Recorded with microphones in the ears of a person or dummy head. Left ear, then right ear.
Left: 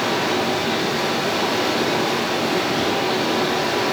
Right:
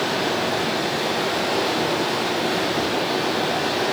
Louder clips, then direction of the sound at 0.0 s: Left 2 dB; centre (ahead or behind).